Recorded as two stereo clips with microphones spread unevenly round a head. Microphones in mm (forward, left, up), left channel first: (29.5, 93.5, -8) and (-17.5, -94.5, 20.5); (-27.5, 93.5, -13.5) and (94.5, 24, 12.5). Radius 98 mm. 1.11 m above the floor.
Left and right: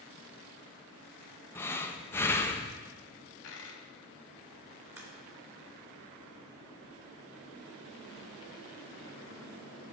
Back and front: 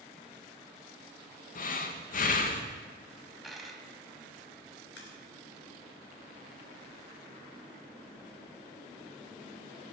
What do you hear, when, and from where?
1.6 s breathing: 150° left, 1.3 m
3.4 s a dropped coin: 55° left, 2 m
5.0 s a crack: 175° left, 2.5 m